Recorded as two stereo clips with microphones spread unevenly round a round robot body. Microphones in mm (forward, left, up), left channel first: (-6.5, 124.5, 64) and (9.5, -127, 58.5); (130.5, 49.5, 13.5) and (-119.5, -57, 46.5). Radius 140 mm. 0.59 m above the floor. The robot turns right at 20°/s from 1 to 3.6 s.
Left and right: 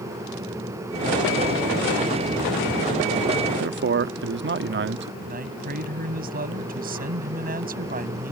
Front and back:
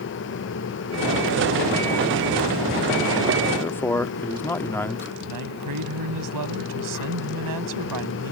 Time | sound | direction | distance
3.6 | a man speaking | 55° right | ?
5.2 | a man speaking | 145° right | ?